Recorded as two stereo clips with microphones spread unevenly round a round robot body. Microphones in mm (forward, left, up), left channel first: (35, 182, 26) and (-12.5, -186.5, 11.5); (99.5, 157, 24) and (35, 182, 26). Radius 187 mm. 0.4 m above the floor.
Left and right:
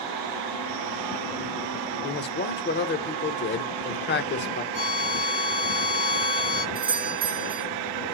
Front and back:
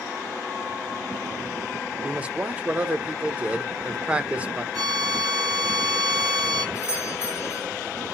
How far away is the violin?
About 3.5 m.